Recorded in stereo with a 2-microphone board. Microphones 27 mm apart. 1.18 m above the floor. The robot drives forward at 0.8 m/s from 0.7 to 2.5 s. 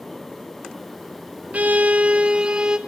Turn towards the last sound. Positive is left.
turn(degrees=-35)  # may be behind; listen again after turning